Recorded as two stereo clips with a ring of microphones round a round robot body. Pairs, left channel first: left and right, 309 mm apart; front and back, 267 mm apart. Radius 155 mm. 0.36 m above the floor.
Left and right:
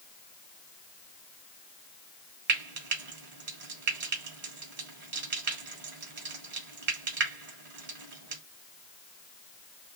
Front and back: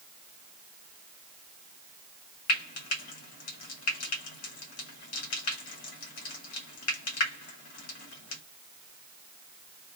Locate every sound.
2.5 s frying: 35° right, 1.5 m